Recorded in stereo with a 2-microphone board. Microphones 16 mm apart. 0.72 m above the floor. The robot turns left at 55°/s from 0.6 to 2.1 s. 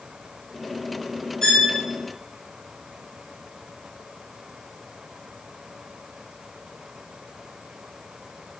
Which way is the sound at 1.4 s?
35° left (ahead or behind).